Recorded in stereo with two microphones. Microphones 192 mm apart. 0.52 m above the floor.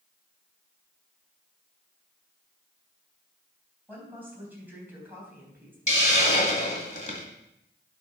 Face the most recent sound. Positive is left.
turn(degrees=40)  # may be behind; listen again after turning